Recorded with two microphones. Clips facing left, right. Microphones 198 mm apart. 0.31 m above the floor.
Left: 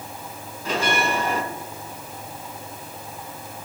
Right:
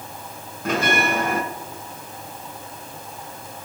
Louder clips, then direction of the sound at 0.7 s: Right 2 dB; 55° right (ahead or behind).